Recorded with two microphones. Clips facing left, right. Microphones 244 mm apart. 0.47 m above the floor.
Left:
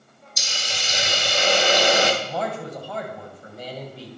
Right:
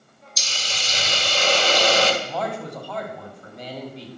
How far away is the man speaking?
About 2.5 m.